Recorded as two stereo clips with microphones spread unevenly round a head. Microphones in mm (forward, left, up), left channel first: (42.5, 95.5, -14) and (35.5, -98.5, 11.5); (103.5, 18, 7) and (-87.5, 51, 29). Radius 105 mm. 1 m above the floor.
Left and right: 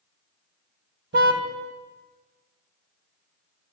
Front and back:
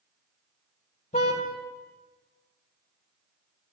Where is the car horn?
70° right, 2.5 m.